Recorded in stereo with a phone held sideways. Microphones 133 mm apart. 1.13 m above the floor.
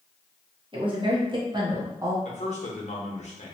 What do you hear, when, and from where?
0.7 s a woman speaking: 40° right (ahead or behind), 1.2 m; by 2.1 s 20° right (ahead or behind), 0.6 m
2.2 s a man speaking: 55° left (ahead or behind), 0.9 m